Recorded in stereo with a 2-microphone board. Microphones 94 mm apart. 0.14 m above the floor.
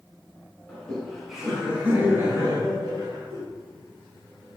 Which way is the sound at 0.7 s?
10° left (ahead or behind).